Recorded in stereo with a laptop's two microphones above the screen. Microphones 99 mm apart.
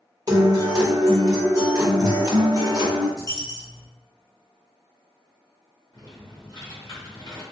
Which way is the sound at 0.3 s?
40° right (ahead or behind).